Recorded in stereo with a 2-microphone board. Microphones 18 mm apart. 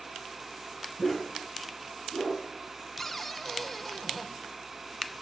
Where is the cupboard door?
5° left (ahead or behind), 1.0 m.